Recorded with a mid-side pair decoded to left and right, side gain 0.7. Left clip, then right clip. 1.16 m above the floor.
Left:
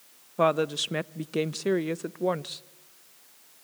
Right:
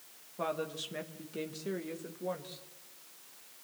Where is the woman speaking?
50° left, 0.9 m.